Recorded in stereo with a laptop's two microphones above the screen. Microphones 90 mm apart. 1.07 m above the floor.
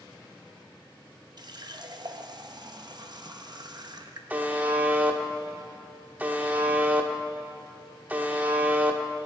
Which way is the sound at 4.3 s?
15° right (ahead or behind).